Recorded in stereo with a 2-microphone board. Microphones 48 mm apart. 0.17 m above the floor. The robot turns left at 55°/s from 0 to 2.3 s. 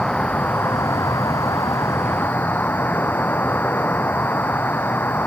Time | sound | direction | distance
0.0 | an insect | 165° left | ?